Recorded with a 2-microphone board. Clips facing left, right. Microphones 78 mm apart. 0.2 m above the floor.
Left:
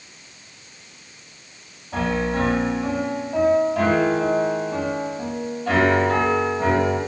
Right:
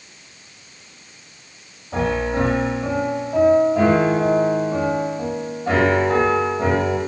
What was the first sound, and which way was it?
A piano, 20° right (ahead or behind).